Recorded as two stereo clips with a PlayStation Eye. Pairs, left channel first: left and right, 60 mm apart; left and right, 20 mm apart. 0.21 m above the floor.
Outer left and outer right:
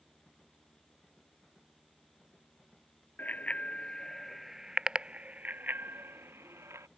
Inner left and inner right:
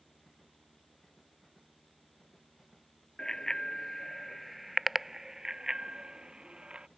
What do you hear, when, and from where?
3.2 s a bicycle bell: 30° left (ahead or behind); by 6.9 s 50° right (ahead or behind)